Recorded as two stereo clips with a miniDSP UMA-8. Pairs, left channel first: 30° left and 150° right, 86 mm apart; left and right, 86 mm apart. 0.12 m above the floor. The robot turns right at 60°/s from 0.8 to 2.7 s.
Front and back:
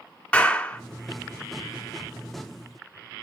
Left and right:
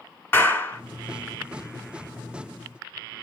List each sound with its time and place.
0.3 s a clap: 80° left, 1.4 m